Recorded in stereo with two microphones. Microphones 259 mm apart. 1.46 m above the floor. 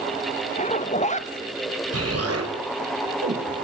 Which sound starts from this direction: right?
An explosion, at 1.9 s.